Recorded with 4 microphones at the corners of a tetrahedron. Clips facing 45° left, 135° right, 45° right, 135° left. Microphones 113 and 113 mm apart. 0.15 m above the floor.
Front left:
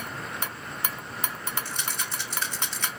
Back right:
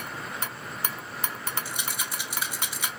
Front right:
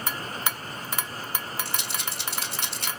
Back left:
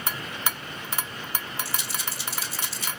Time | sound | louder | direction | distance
1.6 | a rattle | even, even | 55° right | 1.4 m